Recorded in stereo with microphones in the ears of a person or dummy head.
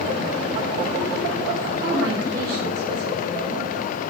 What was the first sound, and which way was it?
A woman speaking, 55° right (ahead or behind).